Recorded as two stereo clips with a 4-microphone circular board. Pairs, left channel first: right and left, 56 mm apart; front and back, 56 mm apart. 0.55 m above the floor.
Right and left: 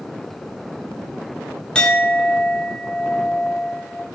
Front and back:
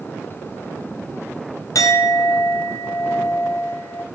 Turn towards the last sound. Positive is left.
turn(degrees=-15)